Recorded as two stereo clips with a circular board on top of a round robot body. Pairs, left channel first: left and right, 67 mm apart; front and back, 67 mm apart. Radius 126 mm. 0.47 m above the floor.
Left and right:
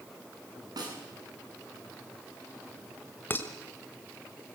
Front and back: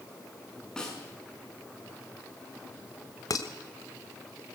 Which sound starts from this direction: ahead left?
Dishes clattering, at 3.3 s.